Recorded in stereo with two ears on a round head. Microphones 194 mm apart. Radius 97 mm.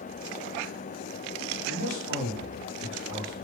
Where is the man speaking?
55° right (ahead or behind), 2.0 m.